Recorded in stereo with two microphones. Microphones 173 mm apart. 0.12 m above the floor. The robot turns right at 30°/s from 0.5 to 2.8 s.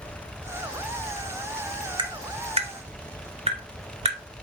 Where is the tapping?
30° right (ahead or behind), 1.6 m; by 4.4 s 35° right (ahead or behind), 1.6 m.